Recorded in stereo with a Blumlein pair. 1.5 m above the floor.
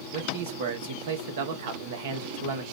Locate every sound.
0.1 s a man speaking: 50° right, 1.0 m